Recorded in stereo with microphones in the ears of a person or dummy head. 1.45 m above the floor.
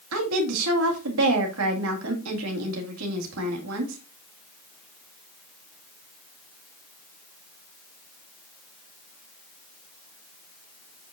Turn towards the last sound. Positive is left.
turn(degrees=-70)  # may be behind; listen again after turning